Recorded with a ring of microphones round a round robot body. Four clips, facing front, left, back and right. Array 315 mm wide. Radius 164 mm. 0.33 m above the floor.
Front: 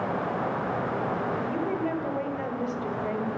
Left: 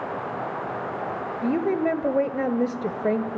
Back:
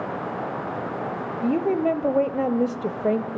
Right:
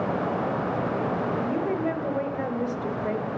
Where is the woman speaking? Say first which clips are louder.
Left 3 dB, back 7 dB; 150° left, 1.7 m.